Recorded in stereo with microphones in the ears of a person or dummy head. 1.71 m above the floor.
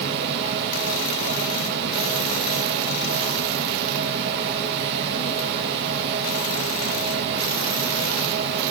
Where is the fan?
55° right (ahead or behind), 1.8 m.